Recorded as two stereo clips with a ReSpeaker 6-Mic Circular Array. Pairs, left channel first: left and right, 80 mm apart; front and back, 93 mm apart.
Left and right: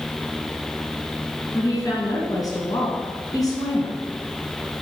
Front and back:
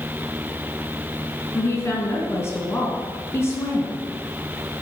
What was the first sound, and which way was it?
A woman speaking, 60° left.